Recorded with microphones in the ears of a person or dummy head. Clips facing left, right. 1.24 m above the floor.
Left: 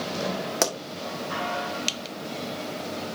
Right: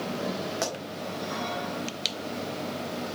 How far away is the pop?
About 1.7 m.